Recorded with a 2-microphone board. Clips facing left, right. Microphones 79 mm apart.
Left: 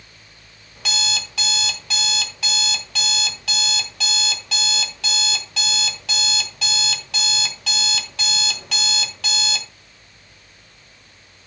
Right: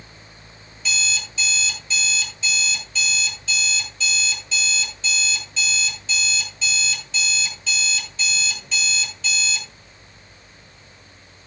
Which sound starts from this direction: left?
An alarm clock, at 0.8 s.